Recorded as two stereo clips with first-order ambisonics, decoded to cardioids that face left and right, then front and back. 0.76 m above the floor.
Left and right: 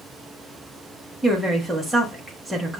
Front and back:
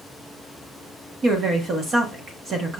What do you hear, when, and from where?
1.2 s a woman speaking: 170° right, 0.8 m